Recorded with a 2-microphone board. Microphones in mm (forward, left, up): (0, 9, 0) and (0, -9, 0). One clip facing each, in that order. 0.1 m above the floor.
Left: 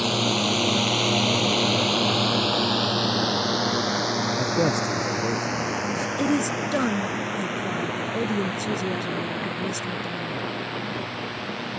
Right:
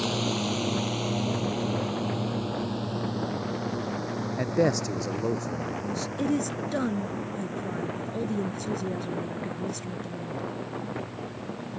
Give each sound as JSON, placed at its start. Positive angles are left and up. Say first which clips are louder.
{"t": 0.0, "sound": "a drone", "louder": "left 5 dB", "side_deg": 25}
{"t": 4.4, "sound": "a man speaking", "louder": "right 2 dB", "side_deg": -15}
{"t": 6.2, "sound": "a woman speaking", "louder": "left 4 dB", "side_deg": 25}